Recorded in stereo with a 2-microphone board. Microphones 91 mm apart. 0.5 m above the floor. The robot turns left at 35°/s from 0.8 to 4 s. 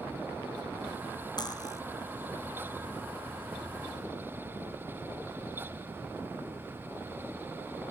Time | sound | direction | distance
1.4 | cutlery clinking | 50° left (ahead or behind) | 0.7 m